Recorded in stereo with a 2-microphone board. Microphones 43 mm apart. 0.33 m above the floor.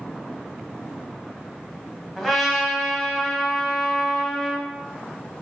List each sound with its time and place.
2.2 s a trumpet: centre (ahead or behind), 1.6 m